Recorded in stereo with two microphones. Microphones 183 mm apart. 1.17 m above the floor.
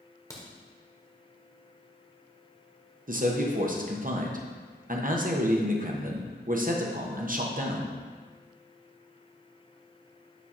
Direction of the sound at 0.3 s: 20° left (ahead or behind).